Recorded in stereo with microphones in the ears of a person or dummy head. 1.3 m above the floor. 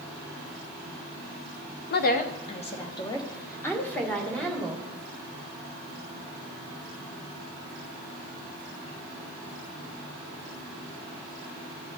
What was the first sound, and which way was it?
A woman speaking, 45° left (ahead or behind).